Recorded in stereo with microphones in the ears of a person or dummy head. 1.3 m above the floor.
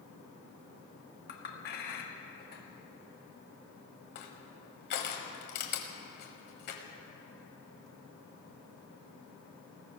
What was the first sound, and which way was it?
A clink, 45° left (ahead or behind).